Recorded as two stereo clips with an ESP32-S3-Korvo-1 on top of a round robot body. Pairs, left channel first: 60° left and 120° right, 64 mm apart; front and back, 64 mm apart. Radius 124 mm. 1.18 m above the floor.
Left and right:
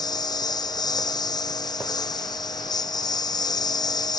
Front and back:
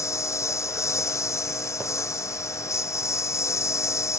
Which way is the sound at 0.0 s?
45° left.